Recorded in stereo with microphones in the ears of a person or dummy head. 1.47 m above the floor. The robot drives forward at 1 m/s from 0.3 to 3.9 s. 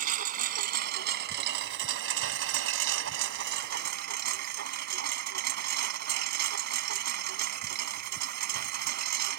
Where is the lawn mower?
45° right (ahead or behind); by 9.4 s 55° right (ahead or behind).